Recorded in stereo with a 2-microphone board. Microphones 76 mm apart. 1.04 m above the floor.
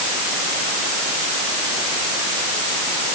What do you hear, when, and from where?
Only background noise.